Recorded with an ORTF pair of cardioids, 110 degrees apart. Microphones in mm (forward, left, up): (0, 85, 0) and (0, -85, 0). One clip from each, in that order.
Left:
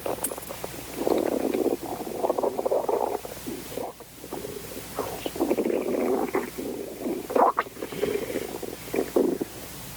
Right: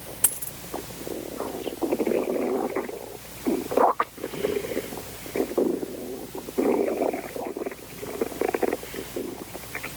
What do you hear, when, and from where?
0.2 s a dropped coin: 55° right